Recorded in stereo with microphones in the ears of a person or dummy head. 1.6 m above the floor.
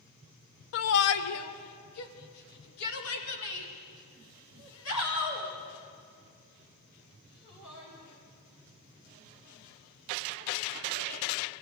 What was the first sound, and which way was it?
A shout, 65° left (ahead or behind).